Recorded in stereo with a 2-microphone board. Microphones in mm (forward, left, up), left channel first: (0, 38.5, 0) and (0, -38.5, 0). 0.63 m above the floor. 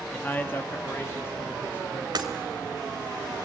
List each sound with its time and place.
0.1 s a man speaking: 15° left (ahead or behind), 1.0 m; by 2.0 s 25° left (ahead or behind), 3 m
2.1 s breaking glass: 60° right (ahead or behind), 2 m